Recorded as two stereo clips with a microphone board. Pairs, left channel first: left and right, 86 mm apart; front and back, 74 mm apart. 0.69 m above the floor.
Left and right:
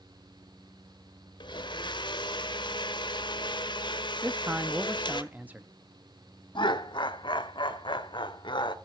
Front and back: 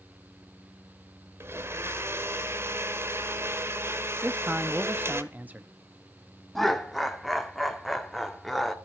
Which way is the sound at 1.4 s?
120° left.